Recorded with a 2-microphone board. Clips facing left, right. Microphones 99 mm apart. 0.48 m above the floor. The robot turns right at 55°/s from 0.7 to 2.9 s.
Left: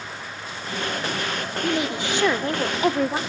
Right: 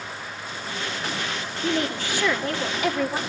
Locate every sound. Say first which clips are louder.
1.6 s a woman speaking: even; 10° left, 1.5 m; by 3.2 s 80° left, 1.5 m